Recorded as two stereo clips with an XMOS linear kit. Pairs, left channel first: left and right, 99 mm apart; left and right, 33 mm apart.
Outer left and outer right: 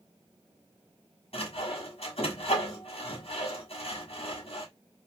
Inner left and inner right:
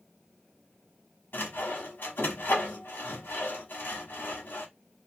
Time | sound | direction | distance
1.3 | sawing | 80° left | 1.5 m